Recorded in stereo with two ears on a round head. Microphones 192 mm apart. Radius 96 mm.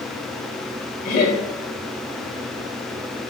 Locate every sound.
1.1 s laughter: 45° left (ahead or behind), 1.6 m